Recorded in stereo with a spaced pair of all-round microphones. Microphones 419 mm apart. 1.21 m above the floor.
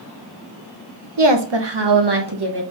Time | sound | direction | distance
1.2 | a woman speaking | 85° right | 0.8 m